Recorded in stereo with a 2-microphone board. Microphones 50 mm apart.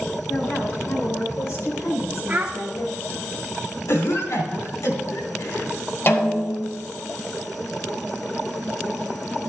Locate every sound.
0.3 s a woman speaking: 85° left, 4.5 m; by 3.3 s 65° left (ahead or behind), 2.5 m
2.3 s a child speaking: 35° right (ahead or behind), 0.5 m
3.9 s a cough: 80° left, 3 m
6.1 s a snare drum: 50° left (ahead or behind), 1.8 m